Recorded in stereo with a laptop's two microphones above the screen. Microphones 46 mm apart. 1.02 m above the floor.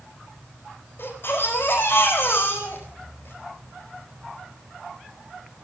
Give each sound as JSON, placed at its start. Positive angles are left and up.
{"t": 1.0, "sound": "a baby crying", "side_deg": 55, "distance_m": 4.0}